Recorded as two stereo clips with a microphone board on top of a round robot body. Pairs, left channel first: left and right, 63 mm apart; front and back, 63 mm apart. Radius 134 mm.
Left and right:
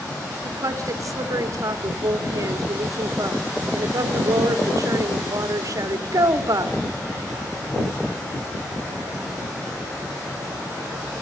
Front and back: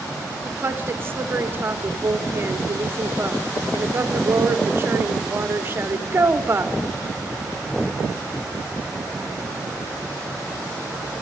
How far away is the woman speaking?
About 1.9 m.